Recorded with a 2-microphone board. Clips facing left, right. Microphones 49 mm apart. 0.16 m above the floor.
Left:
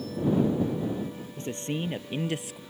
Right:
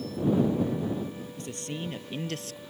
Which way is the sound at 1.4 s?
25° left (ahead or behind).